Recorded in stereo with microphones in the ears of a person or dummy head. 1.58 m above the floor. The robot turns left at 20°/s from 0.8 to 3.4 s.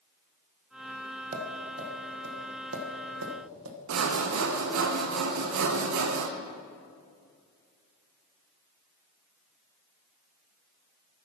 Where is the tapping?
45° right (ahead or behind), 1.2 m; by 3.8 s 80° right, 1.2 m.